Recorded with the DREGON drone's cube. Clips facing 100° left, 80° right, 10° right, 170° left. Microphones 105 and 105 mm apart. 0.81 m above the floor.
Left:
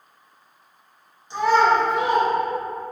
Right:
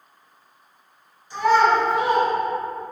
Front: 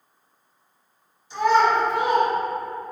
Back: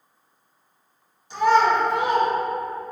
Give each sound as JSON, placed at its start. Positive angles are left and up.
{"t": 1.3, "sound": "a child speaking", "azimuth_deg": 165, "distance_m": 1.5}